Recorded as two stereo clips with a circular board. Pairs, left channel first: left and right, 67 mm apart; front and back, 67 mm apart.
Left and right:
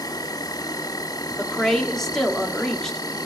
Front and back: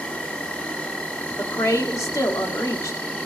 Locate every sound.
0.0 s an insect: 70° left, 1.7 m
1.4 s a woman speaking: 10° left, 1.5 m